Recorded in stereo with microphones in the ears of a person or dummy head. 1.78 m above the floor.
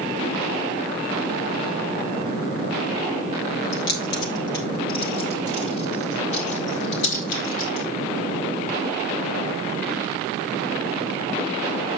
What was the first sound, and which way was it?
Keys jangling, 60° left (ahead or behind).